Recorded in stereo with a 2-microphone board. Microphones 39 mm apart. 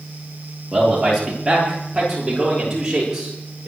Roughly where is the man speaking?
Centre.